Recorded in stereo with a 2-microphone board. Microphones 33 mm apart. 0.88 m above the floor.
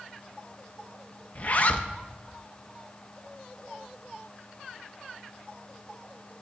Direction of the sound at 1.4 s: 40° left (ahead or behind).